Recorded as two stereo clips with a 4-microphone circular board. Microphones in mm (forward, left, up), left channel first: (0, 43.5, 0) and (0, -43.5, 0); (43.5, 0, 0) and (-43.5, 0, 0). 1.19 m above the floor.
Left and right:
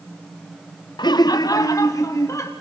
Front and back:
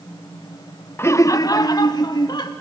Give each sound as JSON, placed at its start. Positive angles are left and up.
{"t": 1.0, "sound": "laughter", "azimuth_deg": 60, "distance_m": 0.7}